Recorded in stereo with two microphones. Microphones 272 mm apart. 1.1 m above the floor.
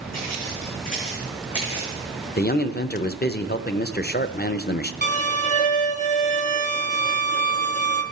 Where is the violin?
30° left (ahead or behind), 0.8 m.